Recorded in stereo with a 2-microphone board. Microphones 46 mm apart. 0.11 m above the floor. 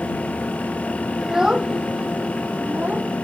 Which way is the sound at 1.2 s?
10° right (ahead or behind).